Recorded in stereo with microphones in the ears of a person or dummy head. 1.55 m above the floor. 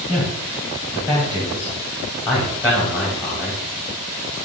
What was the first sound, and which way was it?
A man speaking, 10° left (ahead or behind).